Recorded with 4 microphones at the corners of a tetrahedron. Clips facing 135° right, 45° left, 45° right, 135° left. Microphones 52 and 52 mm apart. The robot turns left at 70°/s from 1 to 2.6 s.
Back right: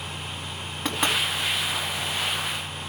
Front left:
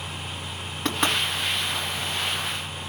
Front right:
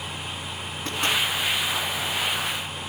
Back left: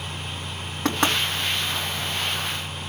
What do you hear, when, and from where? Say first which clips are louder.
0.8 s knocking: front left 1 dB, back left 4 dB; 140° left, 3.5 m; by 1.2 s 130° left, 3.5 m